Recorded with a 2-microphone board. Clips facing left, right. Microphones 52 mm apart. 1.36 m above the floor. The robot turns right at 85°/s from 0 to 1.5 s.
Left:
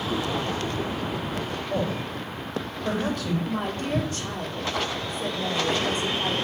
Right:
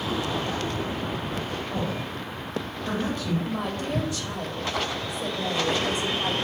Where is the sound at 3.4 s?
45° left (ahead or behind), 3 m.